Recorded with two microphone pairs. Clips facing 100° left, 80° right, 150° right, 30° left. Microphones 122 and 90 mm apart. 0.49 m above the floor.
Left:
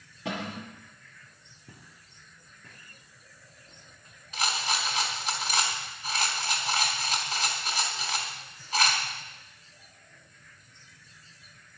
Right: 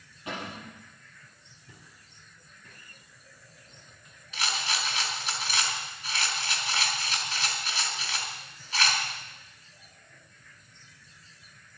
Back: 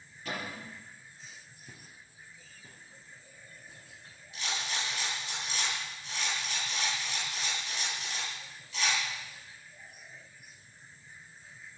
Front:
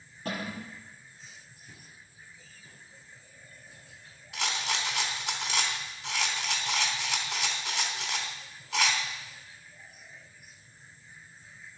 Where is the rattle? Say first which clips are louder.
Left 2 dB, front 4 dB; 50° left, 3.5 m.